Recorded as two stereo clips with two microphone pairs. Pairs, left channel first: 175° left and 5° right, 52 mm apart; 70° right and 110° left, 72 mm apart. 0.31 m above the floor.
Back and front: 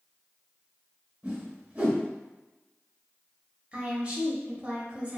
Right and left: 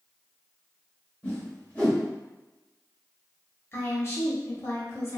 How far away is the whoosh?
About 1.4 m.